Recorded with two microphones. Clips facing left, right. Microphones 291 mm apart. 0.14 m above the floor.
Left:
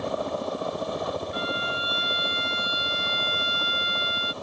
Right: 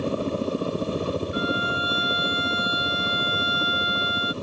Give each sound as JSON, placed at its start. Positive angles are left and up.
{"t": 0.0, "sound": "a helicopter", "side_deg": -35}
{"t": 1.3, "sound": "a violin", "side_deg": 30}